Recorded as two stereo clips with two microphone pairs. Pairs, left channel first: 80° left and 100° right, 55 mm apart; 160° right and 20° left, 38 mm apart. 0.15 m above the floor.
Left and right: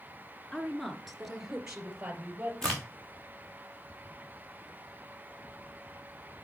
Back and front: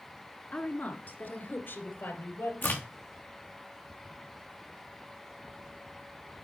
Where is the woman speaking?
155° left, 1.8 m; by 2.5 s 170° right, 3.5 m.